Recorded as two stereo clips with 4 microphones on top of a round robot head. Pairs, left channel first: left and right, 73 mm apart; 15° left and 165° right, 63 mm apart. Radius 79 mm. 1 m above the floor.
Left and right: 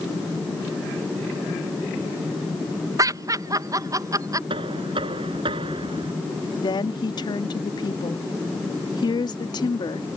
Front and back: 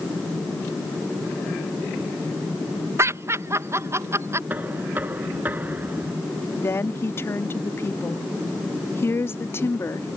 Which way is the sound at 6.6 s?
65° left.